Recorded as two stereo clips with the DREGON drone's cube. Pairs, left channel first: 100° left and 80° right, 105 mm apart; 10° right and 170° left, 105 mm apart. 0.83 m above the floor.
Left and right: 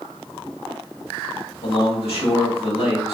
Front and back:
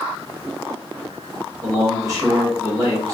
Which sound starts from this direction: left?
A man speaking, at 1.6 s.